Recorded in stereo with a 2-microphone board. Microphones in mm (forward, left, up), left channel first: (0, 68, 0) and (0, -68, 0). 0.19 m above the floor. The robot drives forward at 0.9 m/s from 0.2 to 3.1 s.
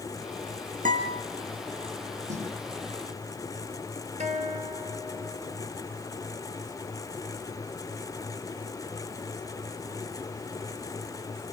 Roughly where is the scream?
No scream in this recording.